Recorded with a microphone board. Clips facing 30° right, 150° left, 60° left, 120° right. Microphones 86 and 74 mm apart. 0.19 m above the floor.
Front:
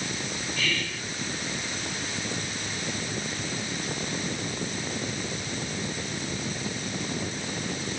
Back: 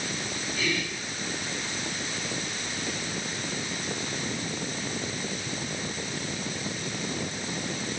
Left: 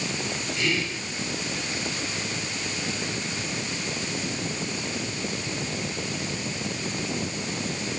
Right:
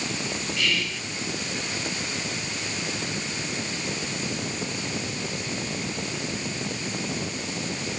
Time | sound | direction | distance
0.6 | whispering | 90° left | 1.4 m